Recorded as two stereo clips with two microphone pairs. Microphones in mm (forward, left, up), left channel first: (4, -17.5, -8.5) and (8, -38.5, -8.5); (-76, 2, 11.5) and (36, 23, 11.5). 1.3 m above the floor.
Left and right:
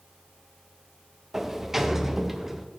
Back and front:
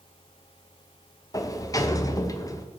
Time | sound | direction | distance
1.3 | a sliding door | 135° right | 0.5 m